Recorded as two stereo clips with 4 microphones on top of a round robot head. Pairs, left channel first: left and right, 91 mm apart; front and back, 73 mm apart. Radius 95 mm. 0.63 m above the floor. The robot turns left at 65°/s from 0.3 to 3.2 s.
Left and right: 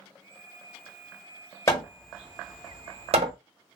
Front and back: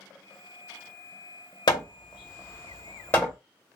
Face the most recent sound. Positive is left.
turn(degrees=-75)